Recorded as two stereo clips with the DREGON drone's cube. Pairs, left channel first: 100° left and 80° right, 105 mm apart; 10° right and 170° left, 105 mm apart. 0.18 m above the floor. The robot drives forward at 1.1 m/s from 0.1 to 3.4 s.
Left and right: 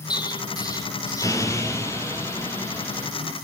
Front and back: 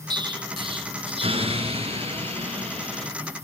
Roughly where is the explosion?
Behind left.